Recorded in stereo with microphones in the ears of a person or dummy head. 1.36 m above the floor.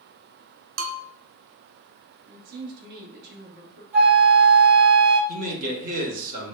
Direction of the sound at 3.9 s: 10° right (ahead or behind).